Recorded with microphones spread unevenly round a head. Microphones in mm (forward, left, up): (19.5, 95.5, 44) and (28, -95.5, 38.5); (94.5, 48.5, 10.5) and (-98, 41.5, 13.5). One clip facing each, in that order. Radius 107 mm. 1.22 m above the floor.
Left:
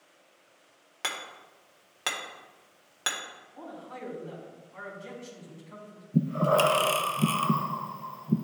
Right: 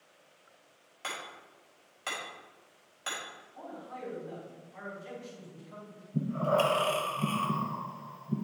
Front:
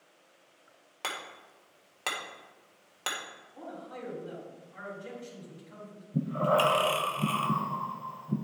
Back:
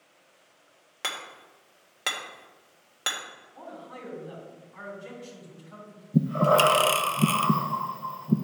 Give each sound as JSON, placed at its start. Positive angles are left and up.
{"t": 1.0, "sound": "hammering", "azimuth_deg": 105, "distance_m": 1.6}
{"t": 3.5, "sound": "a man speaking", "azimuth_deg": 45, "distance_m": 3.5}
{"t": 6.1, "sound": "breathing", "azimuth_deg": 145, "distance_m": 0.5}